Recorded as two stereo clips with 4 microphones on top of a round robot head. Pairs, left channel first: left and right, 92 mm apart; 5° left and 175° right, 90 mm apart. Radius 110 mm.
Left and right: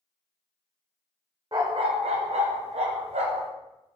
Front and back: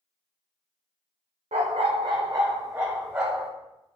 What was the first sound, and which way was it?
A dog barking, 155° right.